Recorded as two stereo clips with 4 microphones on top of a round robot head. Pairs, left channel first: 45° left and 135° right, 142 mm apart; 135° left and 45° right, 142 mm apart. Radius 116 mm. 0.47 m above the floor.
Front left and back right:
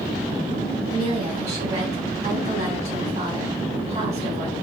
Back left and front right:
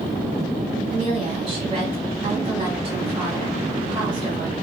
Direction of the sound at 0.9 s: 95° right.